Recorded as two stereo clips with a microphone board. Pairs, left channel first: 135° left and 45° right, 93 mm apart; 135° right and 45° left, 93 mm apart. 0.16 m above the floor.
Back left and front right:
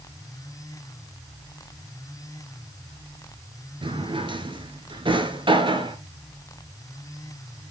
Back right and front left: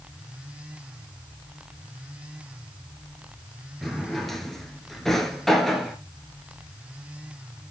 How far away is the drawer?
About 1.3 m.